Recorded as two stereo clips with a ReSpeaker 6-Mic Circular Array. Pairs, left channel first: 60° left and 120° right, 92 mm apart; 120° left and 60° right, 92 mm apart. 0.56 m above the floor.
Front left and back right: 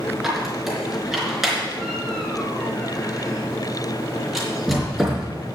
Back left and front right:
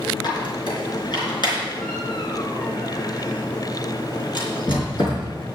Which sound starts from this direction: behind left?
A squeak, at 0.2 s.